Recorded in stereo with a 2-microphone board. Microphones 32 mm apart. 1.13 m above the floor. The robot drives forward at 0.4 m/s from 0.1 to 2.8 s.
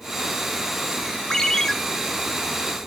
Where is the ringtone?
20° left (ahead or behind), 1.0 m; by 1.7 s 15° left (ahead or behind), 1.2 m.